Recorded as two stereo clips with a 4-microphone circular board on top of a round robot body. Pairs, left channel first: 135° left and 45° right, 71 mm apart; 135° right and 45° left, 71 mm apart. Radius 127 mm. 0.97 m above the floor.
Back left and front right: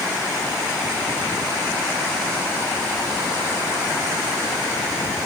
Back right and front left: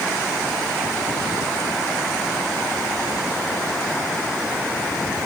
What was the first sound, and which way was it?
Only background noise.